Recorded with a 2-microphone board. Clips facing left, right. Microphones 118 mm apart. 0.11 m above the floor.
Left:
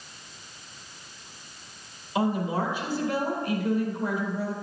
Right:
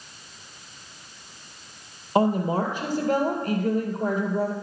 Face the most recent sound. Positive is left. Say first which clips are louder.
# right 4 dB
turn(degrees=-45)  # may be behind; listen again after turning